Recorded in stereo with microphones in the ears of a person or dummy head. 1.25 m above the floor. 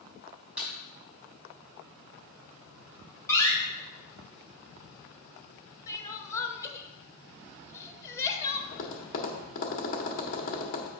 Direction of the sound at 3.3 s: 15° left (ahead or behind).